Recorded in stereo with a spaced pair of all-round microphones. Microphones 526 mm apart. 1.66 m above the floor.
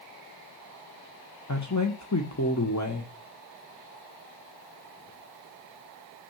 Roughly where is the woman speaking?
Left.